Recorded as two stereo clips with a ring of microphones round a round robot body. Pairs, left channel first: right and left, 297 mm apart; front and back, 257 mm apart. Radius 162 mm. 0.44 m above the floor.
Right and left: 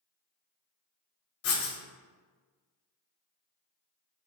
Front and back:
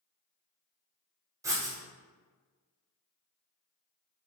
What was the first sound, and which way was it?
Writing, 105° right.